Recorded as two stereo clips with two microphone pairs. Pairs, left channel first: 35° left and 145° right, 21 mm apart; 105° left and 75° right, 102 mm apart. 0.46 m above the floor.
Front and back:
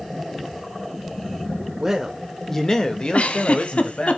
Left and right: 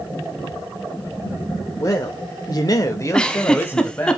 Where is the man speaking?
155° left, 1.1 m; by 4.1 s 35° left, 2 m.